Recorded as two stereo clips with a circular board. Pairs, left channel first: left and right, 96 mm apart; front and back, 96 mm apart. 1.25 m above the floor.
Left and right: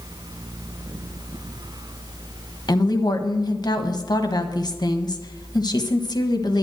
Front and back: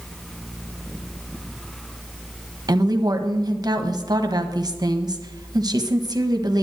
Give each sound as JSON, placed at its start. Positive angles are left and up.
{"t": 2.7, "sound": "a woman speaking", "azimuth_deg": 135, "distance_m": 1.3}